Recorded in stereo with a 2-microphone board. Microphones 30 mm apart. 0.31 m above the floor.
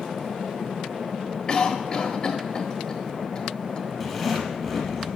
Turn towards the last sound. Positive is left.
turn(degrees=-5)  # may be behind; listen again after turning